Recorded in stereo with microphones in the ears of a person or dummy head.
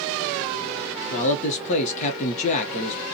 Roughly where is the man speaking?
Left.